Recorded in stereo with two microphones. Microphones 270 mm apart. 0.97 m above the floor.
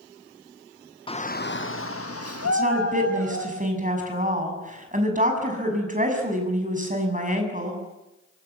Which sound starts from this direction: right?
A woman speaking, at 2.5 s.